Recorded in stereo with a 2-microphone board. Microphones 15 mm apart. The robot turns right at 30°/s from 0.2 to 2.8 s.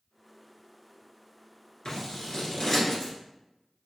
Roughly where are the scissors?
Left.